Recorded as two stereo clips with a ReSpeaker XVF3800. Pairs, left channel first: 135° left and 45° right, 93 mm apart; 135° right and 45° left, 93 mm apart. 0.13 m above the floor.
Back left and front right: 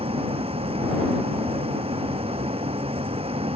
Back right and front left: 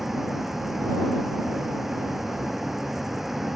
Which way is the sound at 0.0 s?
40° right.